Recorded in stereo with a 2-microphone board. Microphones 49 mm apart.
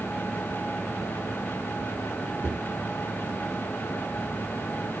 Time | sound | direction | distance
2.4 | a cupboard door | 45° left (ahead or behind) | 2.5 m